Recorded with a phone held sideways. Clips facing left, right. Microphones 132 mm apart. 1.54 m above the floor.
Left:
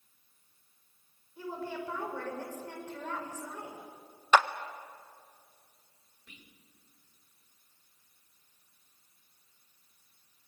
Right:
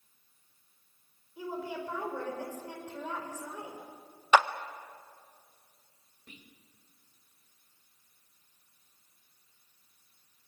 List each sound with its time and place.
1.4 s a woman speaking: 15° right (ahead or behind), 5.5 m
4.3 s a clap: 10° right (ahead or behind), 0.7 m
6.3 s whispering: 40° right (ahead or behind), 2.5 m